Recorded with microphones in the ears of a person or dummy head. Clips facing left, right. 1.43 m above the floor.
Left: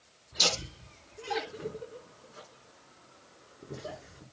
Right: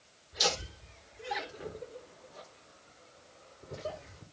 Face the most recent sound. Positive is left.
turn(degrees=60)  # may be behind; listen again after turning